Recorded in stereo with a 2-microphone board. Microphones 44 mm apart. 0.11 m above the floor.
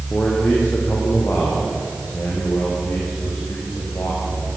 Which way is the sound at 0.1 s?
30° left (ahead or behind).